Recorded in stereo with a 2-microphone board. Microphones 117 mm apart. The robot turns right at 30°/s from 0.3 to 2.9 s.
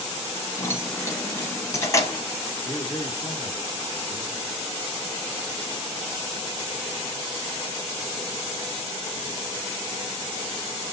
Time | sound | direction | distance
0.6 | keys jangling | 20° left (ahead or behind) | 0.9 m
2.6 | a man speaking | 20° left (ahead or behind) | 1.2 m